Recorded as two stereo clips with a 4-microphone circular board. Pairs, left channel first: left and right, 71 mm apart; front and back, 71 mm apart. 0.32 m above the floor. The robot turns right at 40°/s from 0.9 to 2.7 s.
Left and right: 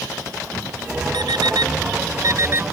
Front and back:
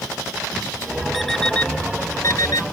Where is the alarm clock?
90° right; by 2.6 s 30° right.